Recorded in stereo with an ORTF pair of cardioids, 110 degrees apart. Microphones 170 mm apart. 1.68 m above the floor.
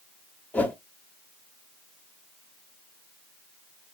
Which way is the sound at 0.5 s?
5° left.